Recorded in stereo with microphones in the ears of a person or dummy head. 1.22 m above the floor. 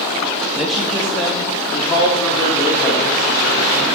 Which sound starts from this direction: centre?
A man speaking, at 0.6 s.